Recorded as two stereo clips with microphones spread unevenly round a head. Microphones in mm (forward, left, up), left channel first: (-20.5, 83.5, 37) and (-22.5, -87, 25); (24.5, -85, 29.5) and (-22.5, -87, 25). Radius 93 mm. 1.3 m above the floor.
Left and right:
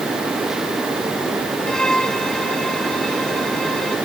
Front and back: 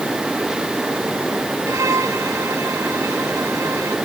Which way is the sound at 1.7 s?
175° left.